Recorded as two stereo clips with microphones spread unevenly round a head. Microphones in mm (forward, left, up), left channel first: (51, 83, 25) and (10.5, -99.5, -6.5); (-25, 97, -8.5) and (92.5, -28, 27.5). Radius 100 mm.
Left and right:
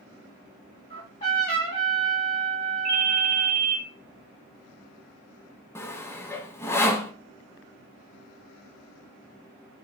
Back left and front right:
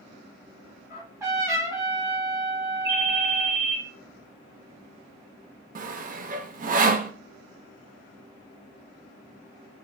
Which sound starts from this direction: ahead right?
A ringtone, at 2.9 s.